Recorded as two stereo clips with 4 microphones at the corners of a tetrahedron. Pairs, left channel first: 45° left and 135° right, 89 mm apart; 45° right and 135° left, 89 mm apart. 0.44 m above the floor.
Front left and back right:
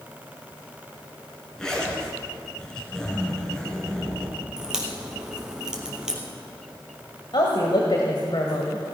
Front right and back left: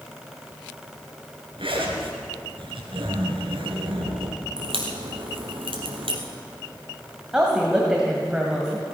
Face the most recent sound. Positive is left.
turn(degrees=55)